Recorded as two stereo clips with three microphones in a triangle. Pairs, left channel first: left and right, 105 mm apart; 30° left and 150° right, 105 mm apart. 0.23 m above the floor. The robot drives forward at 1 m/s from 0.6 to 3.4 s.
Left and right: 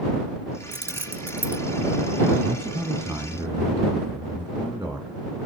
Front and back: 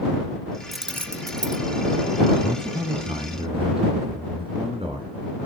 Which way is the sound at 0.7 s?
60° right.